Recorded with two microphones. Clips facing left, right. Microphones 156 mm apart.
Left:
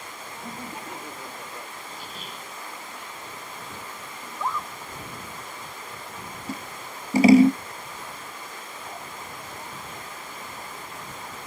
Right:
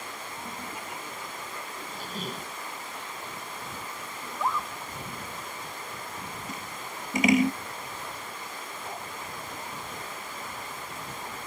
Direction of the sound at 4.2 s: 5° right (ahead or behind).